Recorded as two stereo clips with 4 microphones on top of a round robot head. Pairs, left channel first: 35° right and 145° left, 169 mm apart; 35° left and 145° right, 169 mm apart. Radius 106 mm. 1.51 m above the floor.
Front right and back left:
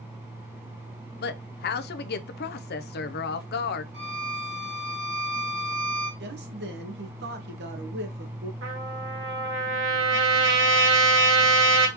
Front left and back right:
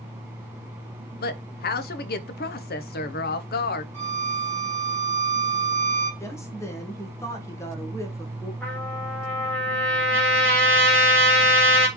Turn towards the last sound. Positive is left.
turn(degrees=120)